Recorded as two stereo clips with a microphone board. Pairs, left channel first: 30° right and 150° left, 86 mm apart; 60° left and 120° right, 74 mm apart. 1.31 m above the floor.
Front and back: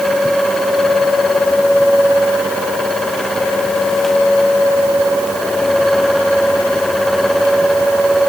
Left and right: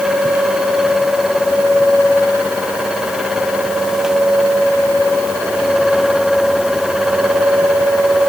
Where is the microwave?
No microwave in this recording.